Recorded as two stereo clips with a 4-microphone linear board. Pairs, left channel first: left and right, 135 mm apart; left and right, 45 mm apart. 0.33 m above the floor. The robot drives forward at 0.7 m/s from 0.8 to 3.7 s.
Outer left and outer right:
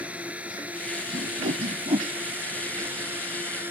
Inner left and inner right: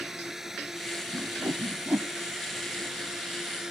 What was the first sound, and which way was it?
A drone, 10° right (ahead or behind).